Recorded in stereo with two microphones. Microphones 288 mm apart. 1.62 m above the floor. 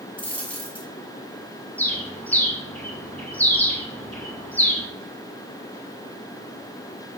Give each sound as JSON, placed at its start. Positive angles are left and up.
{"t": 0.2, "sound": "a dropped coin", "side_deg": 5, "distance_m": 1.0}
{"t": 1.8, "sound": "a bird", "side_deg": 5, "distance_m": 0.6}